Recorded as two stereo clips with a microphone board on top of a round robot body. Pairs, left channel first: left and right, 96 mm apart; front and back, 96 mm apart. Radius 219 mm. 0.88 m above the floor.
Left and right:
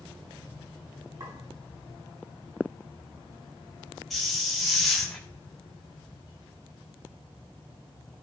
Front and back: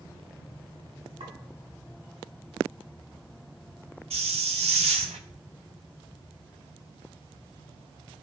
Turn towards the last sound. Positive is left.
turn(degrees=180)